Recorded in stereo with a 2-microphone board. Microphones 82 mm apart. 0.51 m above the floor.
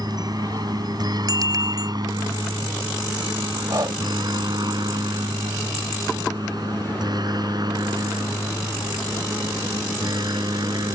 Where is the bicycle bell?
50° right (ahead or behind).